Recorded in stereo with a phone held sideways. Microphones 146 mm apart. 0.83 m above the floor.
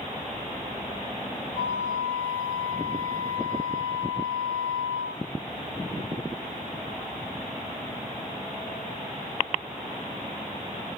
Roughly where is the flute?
Right.